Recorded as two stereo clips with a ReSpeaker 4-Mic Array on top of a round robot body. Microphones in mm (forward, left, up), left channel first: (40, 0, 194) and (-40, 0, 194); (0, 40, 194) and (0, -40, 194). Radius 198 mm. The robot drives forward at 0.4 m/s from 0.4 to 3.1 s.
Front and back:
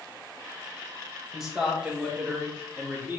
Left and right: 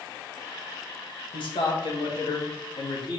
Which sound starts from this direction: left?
A man speaking, at 1.3 s.